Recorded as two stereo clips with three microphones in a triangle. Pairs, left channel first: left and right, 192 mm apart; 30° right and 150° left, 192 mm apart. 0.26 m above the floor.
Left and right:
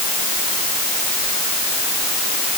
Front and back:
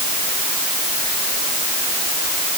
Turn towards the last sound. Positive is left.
No sound to turn to.